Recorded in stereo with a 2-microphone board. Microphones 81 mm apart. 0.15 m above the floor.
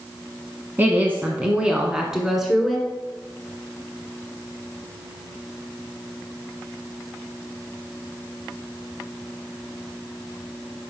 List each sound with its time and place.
0.8 s a woman speaking: 25° right (ahead or behind), 1.0 m; by 2.9 s centre (ahead or behind), 1.4 m